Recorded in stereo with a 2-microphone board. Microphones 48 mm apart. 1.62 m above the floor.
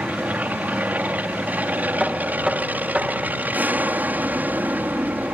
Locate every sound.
0.0 s an aircraft: 40° right (ahead or behind)
2.0 s knocking: 20° right (ahead or behind)